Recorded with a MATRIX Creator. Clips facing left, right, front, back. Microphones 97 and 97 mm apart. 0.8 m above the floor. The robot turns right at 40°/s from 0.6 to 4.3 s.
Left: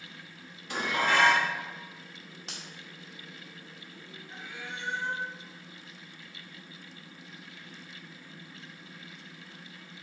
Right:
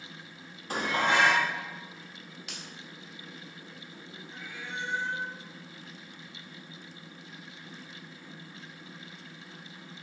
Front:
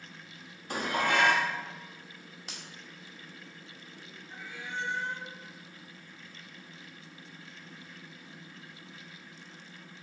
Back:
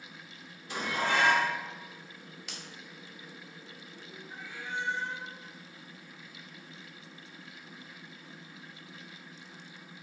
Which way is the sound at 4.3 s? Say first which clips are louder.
Right 1 dB, back 1 dB; 100° left.